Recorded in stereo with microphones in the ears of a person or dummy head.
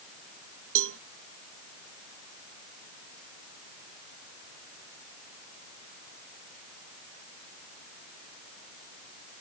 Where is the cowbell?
65° right (ahead or behind).